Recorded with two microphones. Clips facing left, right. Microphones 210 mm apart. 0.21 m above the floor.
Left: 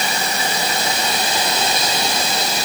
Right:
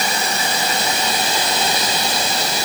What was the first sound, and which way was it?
Only background noise.